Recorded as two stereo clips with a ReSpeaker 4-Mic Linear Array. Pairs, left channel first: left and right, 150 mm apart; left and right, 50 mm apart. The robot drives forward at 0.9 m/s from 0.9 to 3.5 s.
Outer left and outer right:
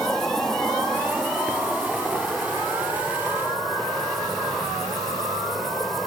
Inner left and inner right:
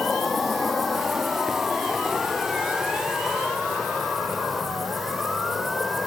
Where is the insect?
5° left (ahead or behind); by 6.1 s centre (ahead or behind).